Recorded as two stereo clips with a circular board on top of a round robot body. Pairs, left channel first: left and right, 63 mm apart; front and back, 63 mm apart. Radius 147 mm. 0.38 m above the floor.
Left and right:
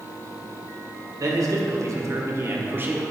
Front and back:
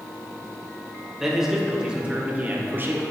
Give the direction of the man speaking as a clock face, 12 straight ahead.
3 o'clock.